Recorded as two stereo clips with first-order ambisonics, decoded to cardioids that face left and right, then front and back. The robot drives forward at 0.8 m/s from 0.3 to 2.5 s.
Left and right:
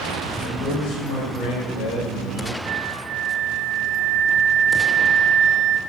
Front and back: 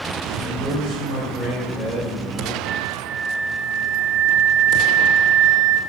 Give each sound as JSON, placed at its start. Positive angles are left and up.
{"t": 0.4, "sound": "a man speaking", "azimuth_deg": 50, "distance_m": 6.0}
{"t": 2.6, "sound": "a flute", "azimuth_deg": -120, "distance_m": 0.8}